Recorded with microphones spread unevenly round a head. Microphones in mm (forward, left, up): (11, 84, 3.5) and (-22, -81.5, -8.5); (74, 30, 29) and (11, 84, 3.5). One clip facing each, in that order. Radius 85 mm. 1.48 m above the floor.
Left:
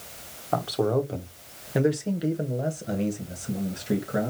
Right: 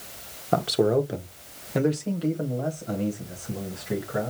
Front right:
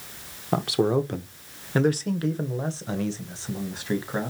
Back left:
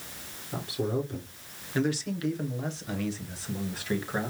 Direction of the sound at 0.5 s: 45° right.